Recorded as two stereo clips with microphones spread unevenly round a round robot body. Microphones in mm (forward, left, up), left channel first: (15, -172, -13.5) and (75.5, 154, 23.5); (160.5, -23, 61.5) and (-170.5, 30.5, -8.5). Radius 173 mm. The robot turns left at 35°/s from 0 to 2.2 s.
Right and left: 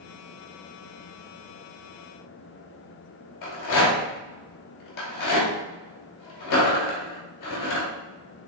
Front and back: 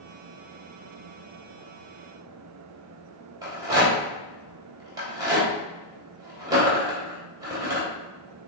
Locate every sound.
3.4 s a rattle: 115° right, 2.5 m